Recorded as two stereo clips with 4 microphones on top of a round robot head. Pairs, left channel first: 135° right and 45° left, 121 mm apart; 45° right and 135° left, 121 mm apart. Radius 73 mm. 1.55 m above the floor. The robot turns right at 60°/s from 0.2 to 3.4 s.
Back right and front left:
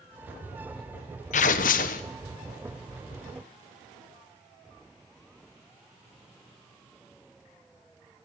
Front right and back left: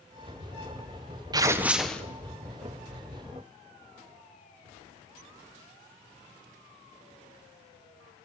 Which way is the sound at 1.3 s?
165° right.